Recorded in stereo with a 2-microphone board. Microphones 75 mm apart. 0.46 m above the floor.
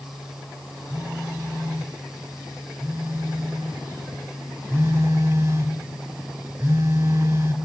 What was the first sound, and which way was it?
A phone buzzing, 35° right (ahead or behind).